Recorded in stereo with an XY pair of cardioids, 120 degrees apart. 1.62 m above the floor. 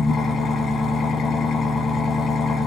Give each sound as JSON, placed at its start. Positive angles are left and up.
{"t": 0.0, "sound": "an engine running", "azimuth_deg": 45, "distance_m": 1.5}